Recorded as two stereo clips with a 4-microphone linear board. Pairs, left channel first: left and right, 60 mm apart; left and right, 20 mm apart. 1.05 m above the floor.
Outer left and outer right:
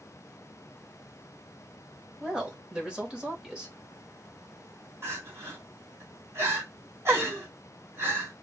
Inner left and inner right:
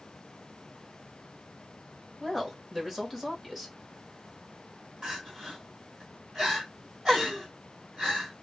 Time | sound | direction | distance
2.2 | a woman speaking | 15° right (ahead or behind) | 1.1 m
5.0 | crying | 45° right (ahead or behind) | 1.5 m